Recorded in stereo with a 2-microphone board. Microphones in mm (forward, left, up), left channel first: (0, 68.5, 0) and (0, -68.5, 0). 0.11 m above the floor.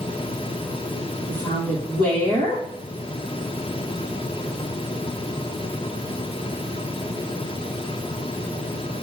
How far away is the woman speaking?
About 2.5 m.